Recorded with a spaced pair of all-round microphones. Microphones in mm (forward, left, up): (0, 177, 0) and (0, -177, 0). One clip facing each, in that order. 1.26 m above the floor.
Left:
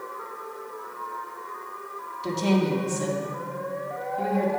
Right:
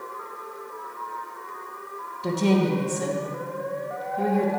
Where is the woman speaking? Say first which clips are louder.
Right 2 dB; 65° right (ahead or behind), 1.1 m.